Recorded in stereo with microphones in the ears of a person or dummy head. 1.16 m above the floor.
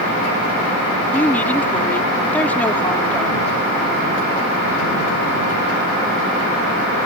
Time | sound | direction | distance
1.1 | a woman speaking | 10° left (ahead or behind) | ?